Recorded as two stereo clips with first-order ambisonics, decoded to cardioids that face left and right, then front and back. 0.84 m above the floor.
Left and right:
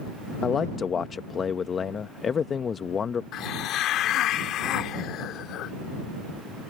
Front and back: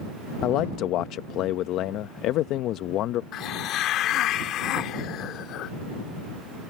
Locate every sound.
0.4 s a man speaking: 25° left
3.3 s a hiss: 45° left